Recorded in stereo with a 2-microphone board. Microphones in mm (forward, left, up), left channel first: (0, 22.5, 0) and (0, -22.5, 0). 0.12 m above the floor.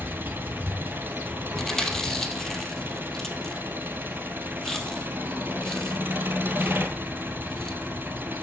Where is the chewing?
10° left (ahead or behind), 2.5 m.